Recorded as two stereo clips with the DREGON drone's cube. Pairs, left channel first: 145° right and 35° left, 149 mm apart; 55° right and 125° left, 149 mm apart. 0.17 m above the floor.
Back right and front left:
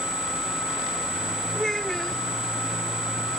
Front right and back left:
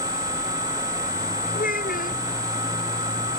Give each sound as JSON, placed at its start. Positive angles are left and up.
{"t": 1.6, "sound": "a child speaking", "azimuth_deg": -60}